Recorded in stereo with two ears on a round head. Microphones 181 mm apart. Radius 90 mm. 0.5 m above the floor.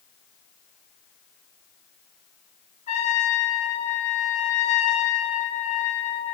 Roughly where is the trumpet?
Left.